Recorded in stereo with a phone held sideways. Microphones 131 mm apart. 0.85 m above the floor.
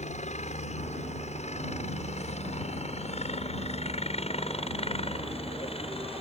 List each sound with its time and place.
0.0 s a helicopter: 60° left (ahead or behind); by 6.2 s 45° left (ahead or behind)